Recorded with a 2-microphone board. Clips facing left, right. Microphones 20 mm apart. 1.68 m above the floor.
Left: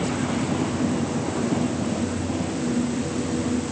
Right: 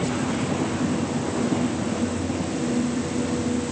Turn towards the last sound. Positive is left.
No sound to turn to.